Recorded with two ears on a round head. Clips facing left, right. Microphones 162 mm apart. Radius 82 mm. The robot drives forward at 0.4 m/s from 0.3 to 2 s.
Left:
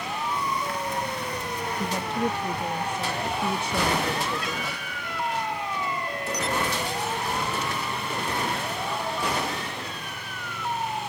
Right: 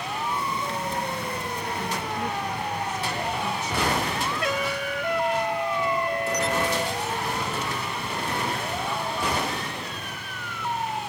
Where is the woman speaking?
30° left (ahead or behind); by 5.0 s 25° left (ahead or behind).